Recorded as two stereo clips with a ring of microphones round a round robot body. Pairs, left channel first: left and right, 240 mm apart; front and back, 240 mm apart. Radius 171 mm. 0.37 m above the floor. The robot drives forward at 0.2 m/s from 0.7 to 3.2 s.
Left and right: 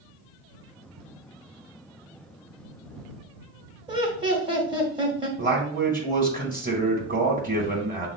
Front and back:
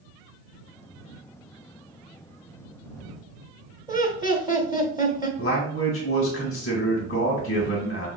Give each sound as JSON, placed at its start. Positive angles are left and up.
{"t": 3.9, "sound": "laughter", "azimuth_deg": -130, "distance_m": 0.8}
{"t": 5.4, "sound": "a man speaking", "azimuth_deg": -50, "distance_m": 1.2}